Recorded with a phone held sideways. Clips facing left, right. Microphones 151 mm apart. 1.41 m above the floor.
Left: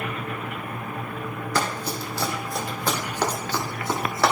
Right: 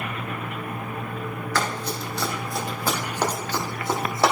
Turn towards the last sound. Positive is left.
turn(degrees=-25)  # may be behind; listen again after turning